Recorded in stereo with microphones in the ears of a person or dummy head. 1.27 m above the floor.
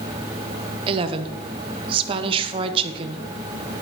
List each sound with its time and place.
0.9 s a woman speaking: 30° right (ahead or behind), 0.6 m